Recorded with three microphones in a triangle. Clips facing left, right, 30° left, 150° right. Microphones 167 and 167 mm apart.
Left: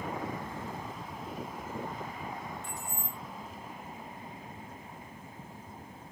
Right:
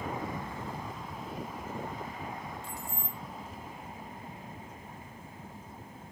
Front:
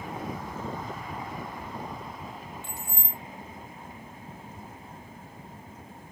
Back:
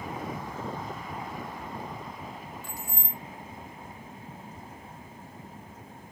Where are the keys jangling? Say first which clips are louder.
Even, even; 35° right, 0.8 m.